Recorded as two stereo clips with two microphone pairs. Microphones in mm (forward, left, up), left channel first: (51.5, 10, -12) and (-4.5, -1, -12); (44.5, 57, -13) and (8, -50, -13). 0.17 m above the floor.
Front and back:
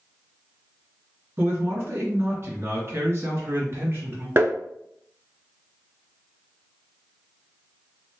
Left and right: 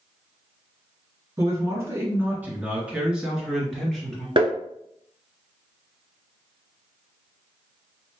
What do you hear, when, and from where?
1.4 s a man speaking: 155° right, 2 m; by 4.3 s 155° left, 3 m
4.4 s tapping: 130° right, 0.6 m